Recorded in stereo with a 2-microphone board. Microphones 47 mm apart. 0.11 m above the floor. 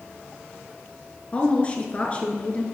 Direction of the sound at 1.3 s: 30° left (ahead or behind).